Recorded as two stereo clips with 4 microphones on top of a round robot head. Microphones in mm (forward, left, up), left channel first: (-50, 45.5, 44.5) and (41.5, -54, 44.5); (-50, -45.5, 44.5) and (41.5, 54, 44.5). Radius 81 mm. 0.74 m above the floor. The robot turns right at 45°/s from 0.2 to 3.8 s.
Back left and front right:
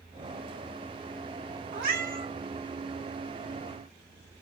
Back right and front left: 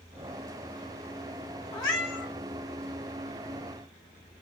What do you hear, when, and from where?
1.7 s a cat meowing: 70° right, 2 m; by 2.3 s 45° right, 2 m